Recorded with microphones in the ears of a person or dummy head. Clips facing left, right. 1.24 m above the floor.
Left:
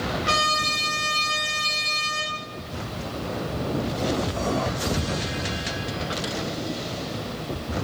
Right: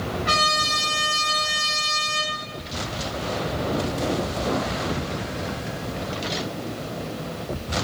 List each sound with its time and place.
0.2 s a trumpet: 40° left (ahead or behind), 1.0 m